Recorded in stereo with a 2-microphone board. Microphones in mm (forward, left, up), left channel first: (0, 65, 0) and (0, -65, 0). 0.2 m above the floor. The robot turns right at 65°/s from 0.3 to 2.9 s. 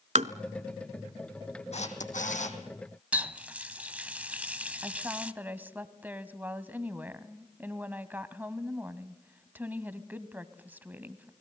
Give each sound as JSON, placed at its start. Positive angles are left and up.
{"t": 0.1, "sound": "tapping", "side_deg": -70, "distance_m": 0.8}
{"t": 1.7, "sound": "a camera shutter", "azimuth_deg": 60, "distance_m": 2.5}
{"t": 3.1, "sound": "a running tap", "side_deg": -10, "distance_m": 0.7}
{"t": 4.8, "sound": "a woman speaking", "side_deg": -15, "distance_m": 1.0}